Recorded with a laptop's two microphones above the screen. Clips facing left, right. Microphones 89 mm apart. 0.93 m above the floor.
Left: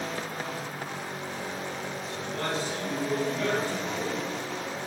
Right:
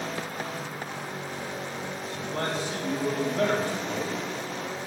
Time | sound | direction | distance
2.2 | a man speaking | 55° right (ahead or behind) | 5.5 m